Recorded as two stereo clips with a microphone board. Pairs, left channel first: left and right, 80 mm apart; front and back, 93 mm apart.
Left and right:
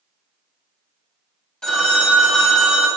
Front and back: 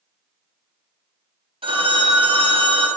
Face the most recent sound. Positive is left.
turn(degrees=170)